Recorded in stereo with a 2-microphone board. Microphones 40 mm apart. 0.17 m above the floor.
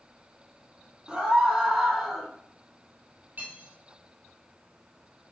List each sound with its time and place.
1.1 s a scream: 20° right (ahead or behind), 1.0 m; by 2.3 s 5° right (ahead or behind), 1.0 m
3.4 s cutlery clinking: 45° right (ahead or behind), 2.5 m